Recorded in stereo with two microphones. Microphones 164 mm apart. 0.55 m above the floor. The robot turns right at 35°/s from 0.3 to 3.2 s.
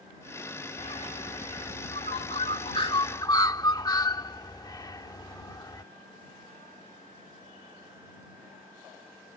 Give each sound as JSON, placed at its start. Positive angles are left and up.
{"t": 0.8, "sound": "a bird", "side_deg": 40}